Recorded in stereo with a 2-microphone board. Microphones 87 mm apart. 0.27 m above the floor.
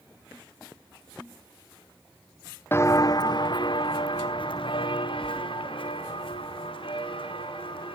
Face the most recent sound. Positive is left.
turn(degrees=75)  # may be behind; listen again after turning